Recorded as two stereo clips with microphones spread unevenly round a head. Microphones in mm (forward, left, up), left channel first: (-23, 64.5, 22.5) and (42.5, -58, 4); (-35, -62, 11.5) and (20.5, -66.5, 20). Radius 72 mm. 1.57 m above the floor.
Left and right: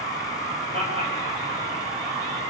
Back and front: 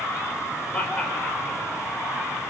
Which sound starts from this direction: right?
Laughter, at 0.7 s.